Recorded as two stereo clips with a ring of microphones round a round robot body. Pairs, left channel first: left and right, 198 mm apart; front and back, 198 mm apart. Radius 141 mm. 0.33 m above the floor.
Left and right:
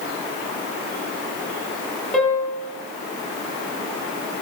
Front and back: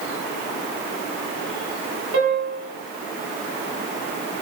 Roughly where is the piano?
Behind.